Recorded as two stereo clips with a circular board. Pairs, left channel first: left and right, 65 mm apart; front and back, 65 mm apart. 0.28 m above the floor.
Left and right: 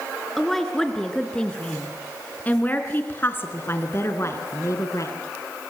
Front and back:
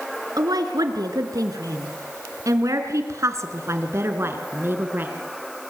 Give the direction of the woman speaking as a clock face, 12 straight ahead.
6 o'clock.